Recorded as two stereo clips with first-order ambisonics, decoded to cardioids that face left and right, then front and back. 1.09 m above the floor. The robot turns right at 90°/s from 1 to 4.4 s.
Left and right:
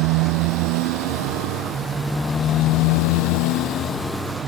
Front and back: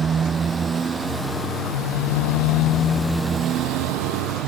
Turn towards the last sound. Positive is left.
turn(degrees=-155)